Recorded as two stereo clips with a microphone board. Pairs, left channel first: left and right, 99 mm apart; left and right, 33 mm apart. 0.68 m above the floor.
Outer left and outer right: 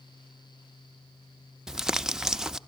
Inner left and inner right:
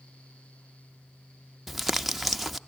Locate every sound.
1.7 s crumpling: 5° right (ahead or behind), 0.7 m